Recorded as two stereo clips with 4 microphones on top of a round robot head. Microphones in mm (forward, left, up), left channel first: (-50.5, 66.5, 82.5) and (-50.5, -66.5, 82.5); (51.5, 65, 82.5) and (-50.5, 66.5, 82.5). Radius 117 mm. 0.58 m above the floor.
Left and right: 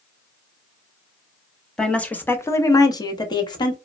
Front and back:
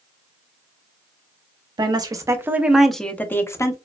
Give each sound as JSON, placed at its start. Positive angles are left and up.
{"t": 1.8, "sound": "a woman speaking", "azimuth_deg": 175, "distance_m": 0.9}